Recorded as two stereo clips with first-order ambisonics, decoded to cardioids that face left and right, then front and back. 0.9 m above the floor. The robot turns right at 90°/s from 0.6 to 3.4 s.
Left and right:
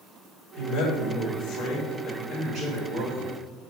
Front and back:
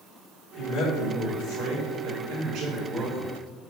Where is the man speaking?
40° left, 3 m; by 3.3 s 75° right, 3 m.